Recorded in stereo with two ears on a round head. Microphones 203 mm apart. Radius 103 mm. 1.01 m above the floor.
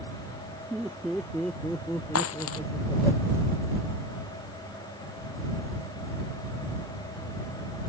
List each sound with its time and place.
0.7 s laughter: centre (ahead or behind); by 3.1 s 10° left (ahead or behind)
2.1 s a dropped coin: 70° left (ahead or behind)